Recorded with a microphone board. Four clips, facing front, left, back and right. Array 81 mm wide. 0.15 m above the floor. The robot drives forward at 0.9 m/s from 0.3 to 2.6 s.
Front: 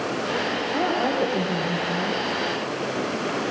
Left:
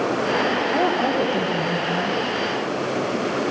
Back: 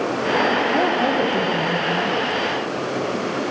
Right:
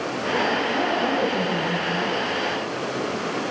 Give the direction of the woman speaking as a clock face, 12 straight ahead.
7 o'clock.